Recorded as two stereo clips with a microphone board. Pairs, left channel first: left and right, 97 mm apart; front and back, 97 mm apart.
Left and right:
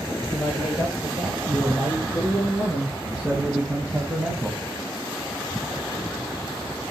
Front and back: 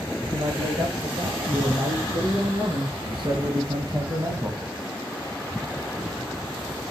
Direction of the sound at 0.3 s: 175° right.